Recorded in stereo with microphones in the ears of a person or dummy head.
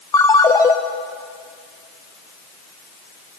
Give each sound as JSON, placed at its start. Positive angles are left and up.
{"t": 0.1, "sound": "a ringtone", "side_deg": 20, "distance_m": 0.6}